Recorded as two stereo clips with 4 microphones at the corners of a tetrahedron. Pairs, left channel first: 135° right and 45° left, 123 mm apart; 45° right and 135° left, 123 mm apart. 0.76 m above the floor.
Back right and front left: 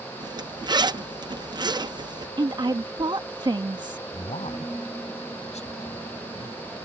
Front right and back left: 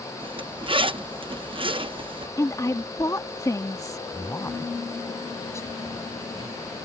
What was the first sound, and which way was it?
A zipper, 95° left.